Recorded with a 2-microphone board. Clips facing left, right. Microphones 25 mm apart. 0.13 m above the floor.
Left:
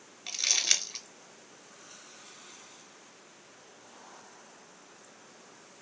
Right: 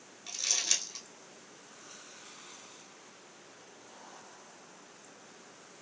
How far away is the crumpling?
About 0.8 m.